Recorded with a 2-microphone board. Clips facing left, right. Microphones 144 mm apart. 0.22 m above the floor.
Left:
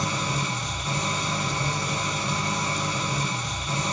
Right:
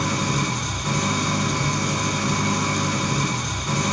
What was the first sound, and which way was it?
An engine running, 70° right (ahead or behind).